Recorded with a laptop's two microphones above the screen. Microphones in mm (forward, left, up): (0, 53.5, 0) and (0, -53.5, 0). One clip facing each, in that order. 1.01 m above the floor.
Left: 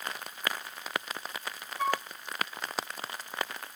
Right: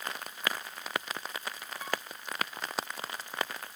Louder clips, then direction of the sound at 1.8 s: Left 7 dB; 75° left (ahead or behind).